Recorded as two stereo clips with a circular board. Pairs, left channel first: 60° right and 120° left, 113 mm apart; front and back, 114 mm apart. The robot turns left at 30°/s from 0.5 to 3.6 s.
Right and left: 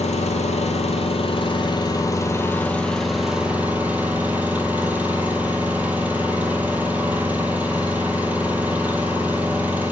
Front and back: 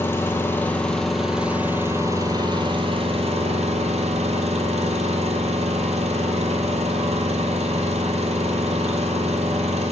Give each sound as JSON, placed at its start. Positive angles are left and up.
{"t": 0.0, "sound": "an engine running", "azimuth_deg": -70, "distance_m": 1.2}